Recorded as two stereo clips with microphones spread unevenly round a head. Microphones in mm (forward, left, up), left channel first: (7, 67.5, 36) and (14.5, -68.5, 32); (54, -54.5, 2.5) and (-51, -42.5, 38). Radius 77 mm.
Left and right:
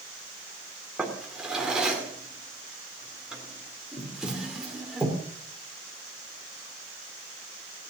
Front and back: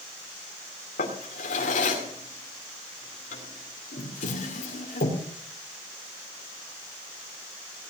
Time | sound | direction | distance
1.0 | a drawer | straight ahead | 2.5 m